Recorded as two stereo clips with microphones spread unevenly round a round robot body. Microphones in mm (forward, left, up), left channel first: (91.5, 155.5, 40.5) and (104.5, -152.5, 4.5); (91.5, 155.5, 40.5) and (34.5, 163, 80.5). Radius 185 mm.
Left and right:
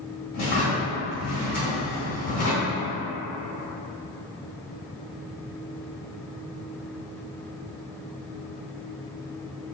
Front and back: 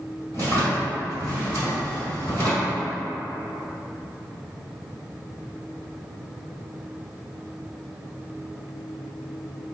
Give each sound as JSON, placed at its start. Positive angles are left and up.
{"t": 0.3, "sound": "a drawer", "azimuth_deg": 135, "distance_m": 1.7}